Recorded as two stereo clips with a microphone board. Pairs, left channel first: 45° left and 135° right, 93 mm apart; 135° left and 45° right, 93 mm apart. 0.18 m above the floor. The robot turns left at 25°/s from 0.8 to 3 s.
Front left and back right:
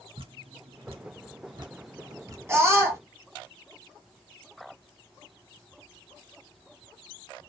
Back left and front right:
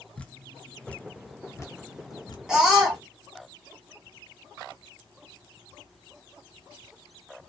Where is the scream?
120° right, 1.6 m; by 3.0 s 130° right, 1.6 m.